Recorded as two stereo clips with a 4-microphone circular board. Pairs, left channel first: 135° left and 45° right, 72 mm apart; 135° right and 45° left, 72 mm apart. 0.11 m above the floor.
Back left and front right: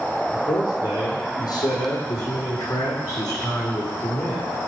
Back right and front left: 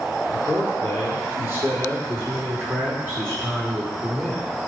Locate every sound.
0.3 s a man speaking: 110° left, 3.5 m; by 4.4 s 100° left, 5.5 m